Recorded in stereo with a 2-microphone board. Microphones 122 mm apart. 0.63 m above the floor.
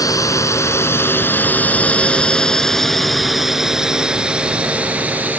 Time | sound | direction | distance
0.0 | a drone | 25° left (ahead or behind) | ?